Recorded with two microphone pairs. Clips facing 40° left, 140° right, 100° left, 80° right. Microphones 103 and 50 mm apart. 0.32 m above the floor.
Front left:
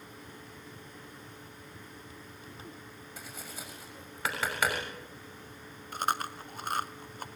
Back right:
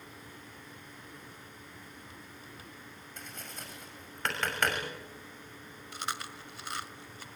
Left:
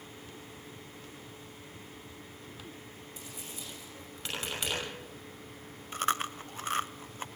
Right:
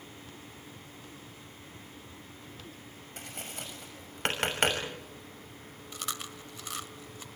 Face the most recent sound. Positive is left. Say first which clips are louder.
# front left 7 dB, left 9 dB
turn(degrees=60)